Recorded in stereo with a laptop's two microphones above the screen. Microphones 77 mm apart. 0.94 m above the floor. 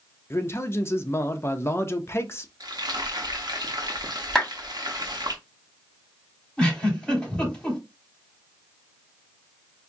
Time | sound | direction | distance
0.3 | a man speaking | 35° left (ahead or behind) | 0.7 m
2.6 | frying | 65° right (ahead or behind) | 0.8 m
4.3 | a clap | 5° left (ahead or behind) | 2.5 m
6.6 | a giggle | 15° left (ahead or behind) | 3 m